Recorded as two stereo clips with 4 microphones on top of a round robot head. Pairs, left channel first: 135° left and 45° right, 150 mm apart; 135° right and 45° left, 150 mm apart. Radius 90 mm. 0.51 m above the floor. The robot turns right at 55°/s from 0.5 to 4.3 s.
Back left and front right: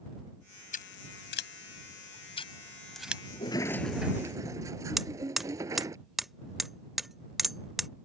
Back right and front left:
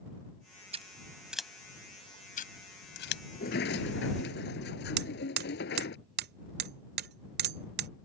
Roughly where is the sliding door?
Behind.